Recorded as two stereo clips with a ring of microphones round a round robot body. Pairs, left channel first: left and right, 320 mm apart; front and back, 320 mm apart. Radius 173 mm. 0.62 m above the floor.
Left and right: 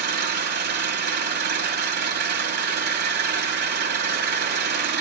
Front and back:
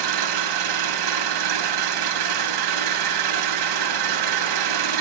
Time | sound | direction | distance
0.0 | an engine running | 150° right | 2 m